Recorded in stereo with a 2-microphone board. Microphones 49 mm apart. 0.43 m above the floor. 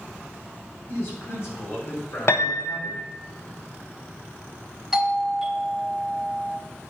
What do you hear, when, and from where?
0.9 s a man speaking: 50° left (ahead or behind), 3 m; by 3.1 s 60° left (ahead or behind), 2.5 m
2.3 s a piano: 55° left (ahead or behind), 0.8 m
4.9 s a doorbell: 10° right (ahead or behind), 1.2 m